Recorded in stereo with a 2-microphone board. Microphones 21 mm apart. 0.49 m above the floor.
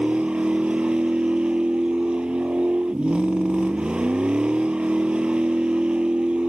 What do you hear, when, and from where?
0.0 s a vehicle: 50° right (ahead or behind)